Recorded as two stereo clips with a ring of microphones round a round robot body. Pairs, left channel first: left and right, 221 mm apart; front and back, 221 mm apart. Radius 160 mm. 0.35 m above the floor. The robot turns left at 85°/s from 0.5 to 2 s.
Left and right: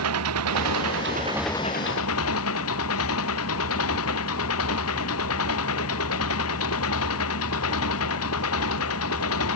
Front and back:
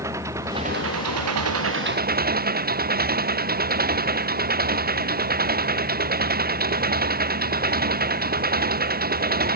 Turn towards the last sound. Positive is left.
turn(degrees=135)